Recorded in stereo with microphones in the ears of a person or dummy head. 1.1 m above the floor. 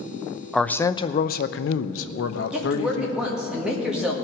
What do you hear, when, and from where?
0.5 s a man speaking: centre (ahead or behind), 0.6 m; by 3.5 s 65° left (ahead or behind), 1.4 m
2.5 s a woman speaking: 5° right (ahead or behind), 1.8 m